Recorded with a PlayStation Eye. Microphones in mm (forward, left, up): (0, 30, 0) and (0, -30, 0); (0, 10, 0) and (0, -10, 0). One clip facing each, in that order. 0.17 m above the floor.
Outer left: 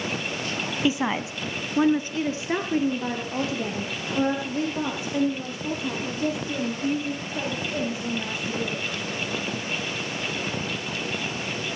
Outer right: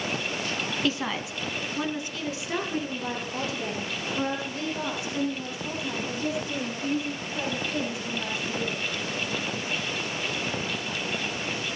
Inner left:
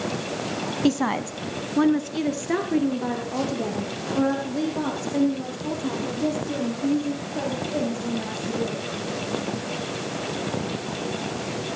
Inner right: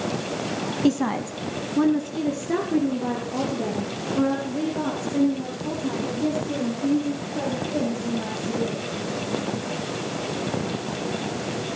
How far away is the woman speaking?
About 1.0 m.